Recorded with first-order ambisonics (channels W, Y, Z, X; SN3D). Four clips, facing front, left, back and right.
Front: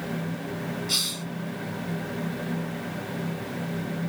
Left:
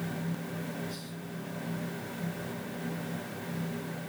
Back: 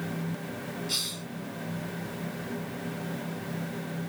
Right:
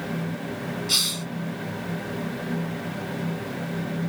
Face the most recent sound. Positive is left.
turn(degrees=-75)